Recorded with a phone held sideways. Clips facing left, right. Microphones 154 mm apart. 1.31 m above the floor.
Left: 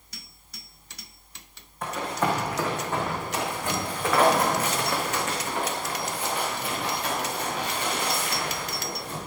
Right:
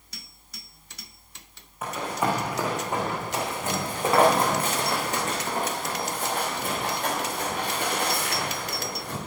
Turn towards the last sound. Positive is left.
turn(degrees=-60)  # may be behind; listen again after turning